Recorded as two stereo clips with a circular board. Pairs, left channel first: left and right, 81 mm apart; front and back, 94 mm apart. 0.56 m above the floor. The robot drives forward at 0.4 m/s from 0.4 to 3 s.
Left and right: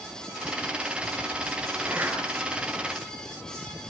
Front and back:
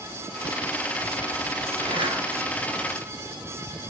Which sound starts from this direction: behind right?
A zipper, at 1.8 s.